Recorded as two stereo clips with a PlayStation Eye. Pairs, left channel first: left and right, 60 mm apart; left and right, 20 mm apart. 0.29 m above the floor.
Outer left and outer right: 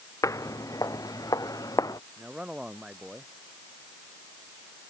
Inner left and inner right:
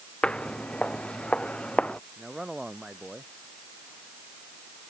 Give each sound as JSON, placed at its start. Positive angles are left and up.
{"t": 0.2, "sound": "footsteps", "side_deg": 60}
{"t": 2.2, "sound": "a man speaking", "side_deg": -15}